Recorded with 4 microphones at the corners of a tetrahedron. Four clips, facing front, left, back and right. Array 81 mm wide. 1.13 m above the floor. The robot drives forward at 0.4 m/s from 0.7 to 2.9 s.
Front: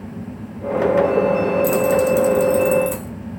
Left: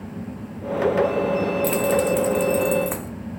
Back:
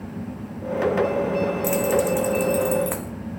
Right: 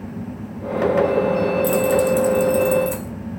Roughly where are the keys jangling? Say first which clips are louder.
Right 3 dB, front 4 dB; behind left.